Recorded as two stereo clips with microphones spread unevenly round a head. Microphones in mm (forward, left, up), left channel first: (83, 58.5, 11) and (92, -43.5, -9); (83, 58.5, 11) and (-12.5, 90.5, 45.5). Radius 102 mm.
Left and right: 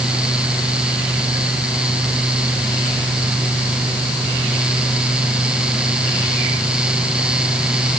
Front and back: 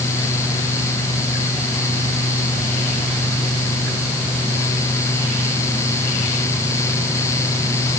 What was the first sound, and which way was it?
Only background noise.